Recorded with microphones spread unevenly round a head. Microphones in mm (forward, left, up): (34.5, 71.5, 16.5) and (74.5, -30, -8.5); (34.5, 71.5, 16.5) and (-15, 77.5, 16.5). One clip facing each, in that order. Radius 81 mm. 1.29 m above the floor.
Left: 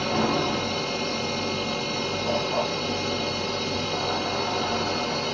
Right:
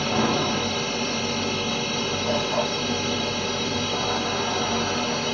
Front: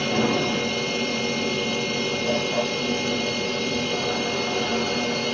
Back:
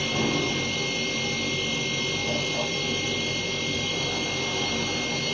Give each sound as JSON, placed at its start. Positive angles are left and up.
{"t": 0.0, "sound": "a machine running", "azimuth_deg": 15, "distance_m": 3.0}